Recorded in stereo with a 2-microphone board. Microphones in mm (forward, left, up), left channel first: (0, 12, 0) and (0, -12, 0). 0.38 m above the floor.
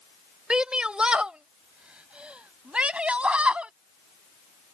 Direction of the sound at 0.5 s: 40° right (ahead or behind).